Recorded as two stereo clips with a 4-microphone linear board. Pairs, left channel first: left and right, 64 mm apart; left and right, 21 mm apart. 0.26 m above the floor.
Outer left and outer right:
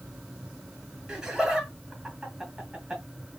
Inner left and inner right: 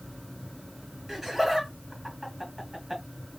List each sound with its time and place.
1.1 s laughter: 10° right (ahead or behind), 1.8 m